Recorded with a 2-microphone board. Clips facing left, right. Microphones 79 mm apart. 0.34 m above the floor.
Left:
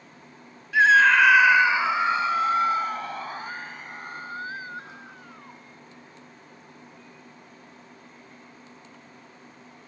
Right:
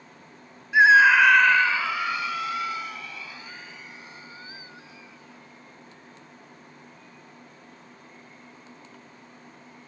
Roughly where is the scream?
Centre.